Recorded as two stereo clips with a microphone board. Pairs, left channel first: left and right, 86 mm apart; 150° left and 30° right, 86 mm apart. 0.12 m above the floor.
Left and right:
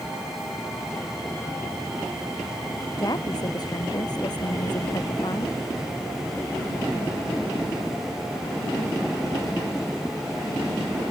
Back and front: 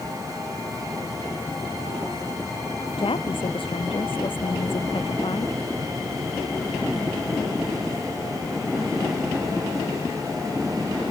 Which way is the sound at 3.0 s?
135° left.